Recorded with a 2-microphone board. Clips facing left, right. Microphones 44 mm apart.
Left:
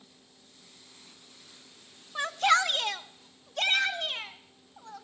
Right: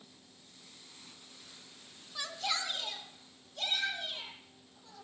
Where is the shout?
40° left (ahead or behind), 0.6 m; by 5.0 s 65° left (ahead or behind), 3 m.